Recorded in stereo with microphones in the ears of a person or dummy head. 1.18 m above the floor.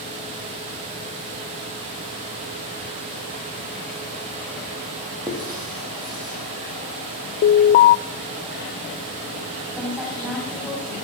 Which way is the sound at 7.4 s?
40° left (ahead or behind).